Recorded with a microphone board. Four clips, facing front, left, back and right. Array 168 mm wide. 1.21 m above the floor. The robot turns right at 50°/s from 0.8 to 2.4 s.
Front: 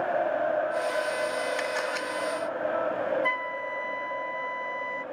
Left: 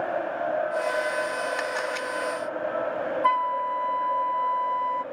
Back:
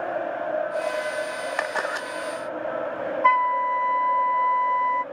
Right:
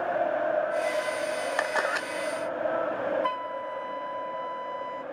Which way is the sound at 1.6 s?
145° right.